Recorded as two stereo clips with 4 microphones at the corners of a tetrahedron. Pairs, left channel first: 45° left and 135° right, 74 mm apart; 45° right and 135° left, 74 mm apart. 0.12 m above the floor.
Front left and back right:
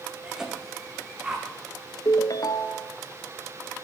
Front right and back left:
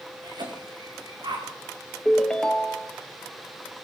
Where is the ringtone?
35° left, 0.9 m.